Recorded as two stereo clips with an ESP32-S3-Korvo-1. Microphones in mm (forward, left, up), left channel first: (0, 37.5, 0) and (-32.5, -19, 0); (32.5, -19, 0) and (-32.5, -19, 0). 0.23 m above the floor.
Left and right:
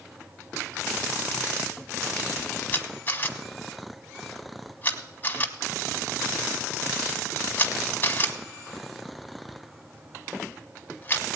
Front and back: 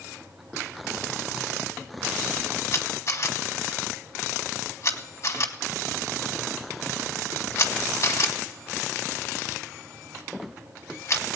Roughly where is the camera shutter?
Ahead.